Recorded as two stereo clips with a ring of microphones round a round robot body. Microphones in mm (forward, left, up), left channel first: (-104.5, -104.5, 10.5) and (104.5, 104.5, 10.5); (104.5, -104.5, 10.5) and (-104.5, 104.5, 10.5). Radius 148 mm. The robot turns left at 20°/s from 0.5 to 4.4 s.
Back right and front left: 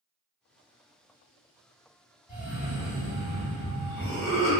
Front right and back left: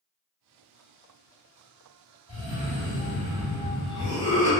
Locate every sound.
2.3 s a cough: 30° right, 1.3 m; by 4.5 s 70° right, 1.3 m